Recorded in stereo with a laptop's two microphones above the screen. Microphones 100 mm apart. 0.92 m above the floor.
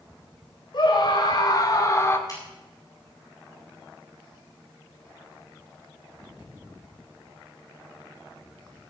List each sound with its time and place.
0.7 s a scream: 50° left (ahead or behind), 3.5 m; by 2.2 s 25° left (ahead or behind), 1.9 m
2.3 s a finger snap: 40° left (ahead or behind), 7.5 m